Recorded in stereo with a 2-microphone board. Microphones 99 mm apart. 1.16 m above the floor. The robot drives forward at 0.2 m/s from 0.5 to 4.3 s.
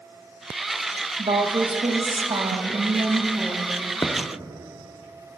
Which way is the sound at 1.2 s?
70° right (ahead or behind).